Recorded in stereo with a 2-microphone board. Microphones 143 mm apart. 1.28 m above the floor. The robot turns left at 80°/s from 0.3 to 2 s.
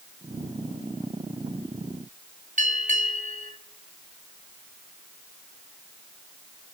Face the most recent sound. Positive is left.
turn(degrees=-60)  # may be behind; listen again after turning